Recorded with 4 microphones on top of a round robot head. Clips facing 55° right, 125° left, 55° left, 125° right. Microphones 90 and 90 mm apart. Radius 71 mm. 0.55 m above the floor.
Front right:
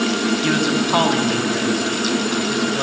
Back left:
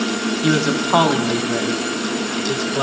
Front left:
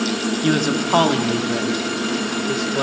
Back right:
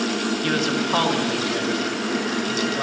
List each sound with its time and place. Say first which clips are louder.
0.4 s a man speaking: back left 1 dB, front left 6 dB; 80° left, 1.4 m; by 2.8 s 70° left, 2.5 m